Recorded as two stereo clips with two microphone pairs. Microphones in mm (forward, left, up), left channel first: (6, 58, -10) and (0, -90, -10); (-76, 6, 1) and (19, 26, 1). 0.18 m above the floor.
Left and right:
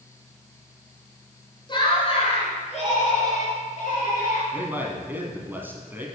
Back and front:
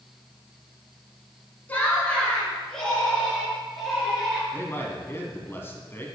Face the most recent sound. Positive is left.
turn(degrees=-150)